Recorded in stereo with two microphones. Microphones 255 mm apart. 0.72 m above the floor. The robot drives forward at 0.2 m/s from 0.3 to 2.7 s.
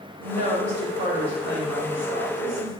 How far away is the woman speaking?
About 2 m.